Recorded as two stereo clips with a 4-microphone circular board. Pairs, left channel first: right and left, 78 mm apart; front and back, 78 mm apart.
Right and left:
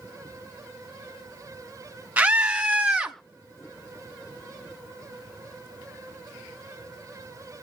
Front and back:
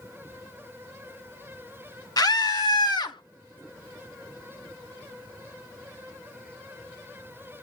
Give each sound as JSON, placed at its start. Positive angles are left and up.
{"t": 2.2, "sound": "a scream", "azimuth_deg": 20, "distance_m": 1.5}